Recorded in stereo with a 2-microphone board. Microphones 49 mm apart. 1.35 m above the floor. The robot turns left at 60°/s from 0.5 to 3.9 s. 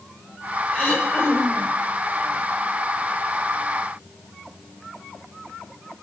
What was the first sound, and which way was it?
Throat clearing, 155° left.